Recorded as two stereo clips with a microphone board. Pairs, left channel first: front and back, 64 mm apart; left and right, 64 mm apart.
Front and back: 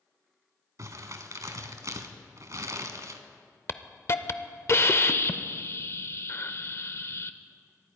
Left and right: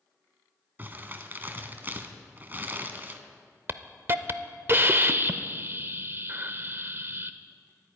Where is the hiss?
40° right, 0.6 m.